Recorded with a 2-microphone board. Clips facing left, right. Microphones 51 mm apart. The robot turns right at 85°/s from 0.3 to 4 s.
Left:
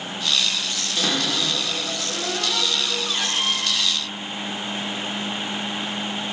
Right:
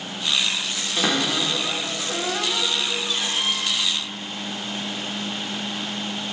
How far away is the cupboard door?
About 1.2 m.